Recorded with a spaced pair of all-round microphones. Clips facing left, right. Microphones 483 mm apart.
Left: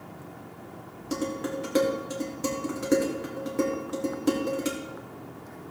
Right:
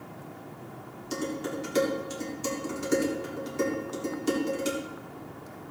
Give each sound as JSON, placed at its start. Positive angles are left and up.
{"t": 1.1, "sound": "dishes clattering", "side_deg": 70, "distance_m": 2.0}